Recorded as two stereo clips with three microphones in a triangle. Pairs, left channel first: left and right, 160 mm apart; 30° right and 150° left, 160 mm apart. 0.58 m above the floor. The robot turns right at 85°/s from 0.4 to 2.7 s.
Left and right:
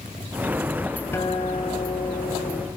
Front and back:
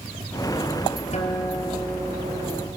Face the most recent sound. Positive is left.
turn(degrees=150)